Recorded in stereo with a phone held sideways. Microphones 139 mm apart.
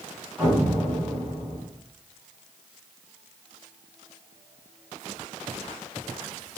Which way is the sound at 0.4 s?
5° right (ahead or behind).